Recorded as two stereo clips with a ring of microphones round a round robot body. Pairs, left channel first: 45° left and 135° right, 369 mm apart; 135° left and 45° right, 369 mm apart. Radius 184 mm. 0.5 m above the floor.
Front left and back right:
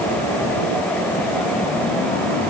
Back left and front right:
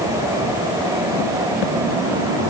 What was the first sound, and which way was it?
Only background noise.